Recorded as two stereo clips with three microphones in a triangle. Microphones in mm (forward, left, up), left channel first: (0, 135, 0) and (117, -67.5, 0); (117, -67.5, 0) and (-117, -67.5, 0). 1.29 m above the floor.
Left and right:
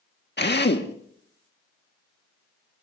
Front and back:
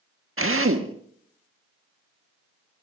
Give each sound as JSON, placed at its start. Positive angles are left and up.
{"t": 0.4, "sound": "a drill", "azimuth_deg": 160, "distance_m": 1.4}